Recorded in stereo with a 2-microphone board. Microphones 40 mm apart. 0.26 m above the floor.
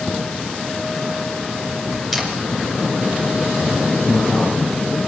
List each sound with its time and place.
2.1 s a camera shutter: centre (ahead or behind), 3 m
4.0 s a man speaking: 40° left (ahead or behind), 4 m